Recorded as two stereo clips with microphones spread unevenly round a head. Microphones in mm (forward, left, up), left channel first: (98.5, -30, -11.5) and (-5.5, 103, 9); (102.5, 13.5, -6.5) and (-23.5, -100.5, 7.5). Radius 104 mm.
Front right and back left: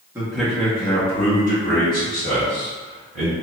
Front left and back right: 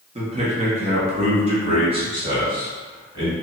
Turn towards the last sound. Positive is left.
turn(degrees=-75)